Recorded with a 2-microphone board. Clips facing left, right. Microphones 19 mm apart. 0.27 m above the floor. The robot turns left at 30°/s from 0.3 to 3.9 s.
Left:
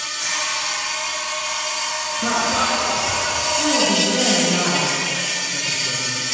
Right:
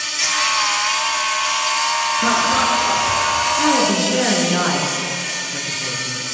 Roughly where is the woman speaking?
Right.